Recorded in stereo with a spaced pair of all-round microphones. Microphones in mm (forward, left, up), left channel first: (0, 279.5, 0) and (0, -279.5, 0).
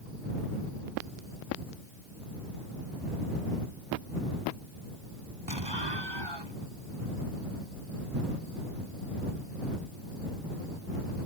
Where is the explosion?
45° right (ahead or behind).